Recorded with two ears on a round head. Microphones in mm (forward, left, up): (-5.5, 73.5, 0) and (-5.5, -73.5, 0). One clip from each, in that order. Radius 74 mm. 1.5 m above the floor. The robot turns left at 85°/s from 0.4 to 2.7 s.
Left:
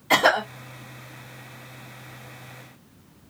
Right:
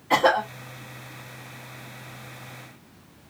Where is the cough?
80° left, 2 m.